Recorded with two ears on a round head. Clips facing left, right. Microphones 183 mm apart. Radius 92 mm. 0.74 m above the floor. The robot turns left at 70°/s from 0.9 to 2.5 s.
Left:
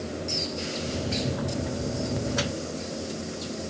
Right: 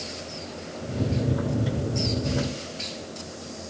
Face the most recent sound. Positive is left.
No sound to turn to.